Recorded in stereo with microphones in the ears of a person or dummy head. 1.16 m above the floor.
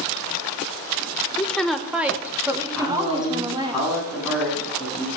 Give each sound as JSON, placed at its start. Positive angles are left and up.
{"t": 1.4, "sound": "a woman speaking", "side_deg": 5, "distance_m": 0.9}
{"t": 2.7, "sound": "a man speaking", "side_deg": -5, "distance_m": 8.0}